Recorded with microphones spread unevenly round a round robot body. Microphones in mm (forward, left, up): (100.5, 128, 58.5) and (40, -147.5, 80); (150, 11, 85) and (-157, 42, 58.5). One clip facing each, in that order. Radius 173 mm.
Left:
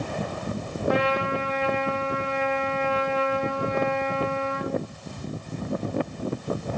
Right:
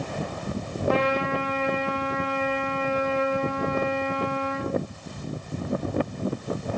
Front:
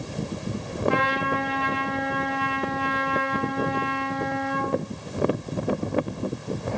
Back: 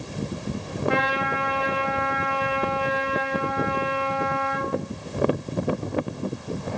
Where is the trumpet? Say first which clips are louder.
Even, front 1 dB; 155° left, 3 m.